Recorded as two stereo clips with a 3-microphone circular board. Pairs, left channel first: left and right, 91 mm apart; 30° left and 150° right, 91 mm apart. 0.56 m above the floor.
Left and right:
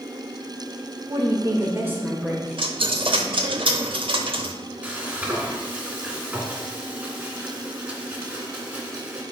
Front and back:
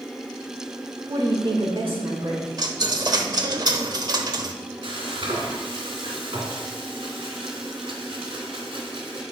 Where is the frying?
165° right, 1.9 m.